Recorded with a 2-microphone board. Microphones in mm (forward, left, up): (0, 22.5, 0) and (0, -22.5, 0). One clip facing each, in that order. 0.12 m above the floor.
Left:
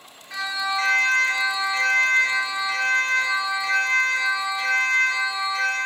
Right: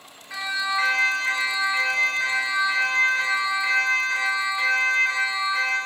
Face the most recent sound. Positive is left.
turn(degrees=-25)  # may be behind; listen again after turning